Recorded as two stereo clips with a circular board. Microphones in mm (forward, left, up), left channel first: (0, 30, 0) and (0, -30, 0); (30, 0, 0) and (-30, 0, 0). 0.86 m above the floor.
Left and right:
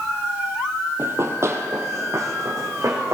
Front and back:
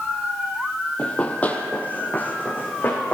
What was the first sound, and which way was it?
Running footsteps, 65° right.